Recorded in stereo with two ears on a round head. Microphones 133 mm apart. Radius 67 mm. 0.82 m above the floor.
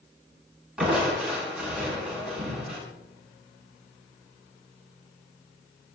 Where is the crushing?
5° right (ahead or behind), 9 m.